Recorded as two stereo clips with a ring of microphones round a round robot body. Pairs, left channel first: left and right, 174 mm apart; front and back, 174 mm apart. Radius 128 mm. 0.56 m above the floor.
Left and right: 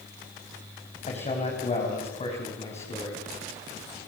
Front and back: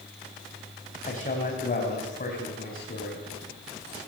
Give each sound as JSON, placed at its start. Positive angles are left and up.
{"t": 1.1, "sound": "a man speaking", "azimuth_deg": 40, "distance_m": 4.0}